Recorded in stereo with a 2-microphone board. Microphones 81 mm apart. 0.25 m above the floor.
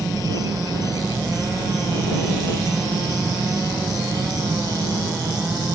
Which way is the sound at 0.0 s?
50° right (ahead or behind).